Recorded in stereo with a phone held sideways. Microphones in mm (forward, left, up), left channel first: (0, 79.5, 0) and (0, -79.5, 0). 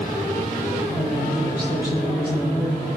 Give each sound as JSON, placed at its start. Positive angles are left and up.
{"t": 0.8, "sound": "a woman speaking", "side_deg": 90, "distance_m": 4.0}